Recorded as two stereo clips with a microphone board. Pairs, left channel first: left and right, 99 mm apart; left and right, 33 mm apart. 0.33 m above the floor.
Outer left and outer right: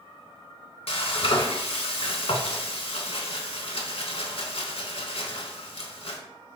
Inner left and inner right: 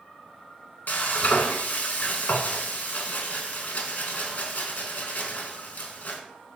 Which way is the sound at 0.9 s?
70° left (ahead or behind).